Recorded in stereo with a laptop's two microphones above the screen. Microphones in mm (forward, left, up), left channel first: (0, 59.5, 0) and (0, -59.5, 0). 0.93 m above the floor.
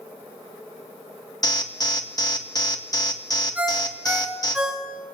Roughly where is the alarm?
Left.